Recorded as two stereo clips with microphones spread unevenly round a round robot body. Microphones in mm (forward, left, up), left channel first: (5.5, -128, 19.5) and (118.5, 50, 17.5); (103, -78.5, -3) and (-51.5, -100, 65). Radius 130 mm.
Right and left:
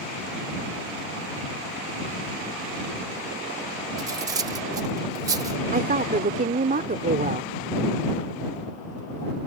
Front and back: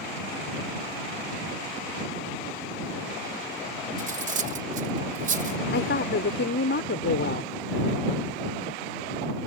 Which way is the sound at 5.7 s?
5° left.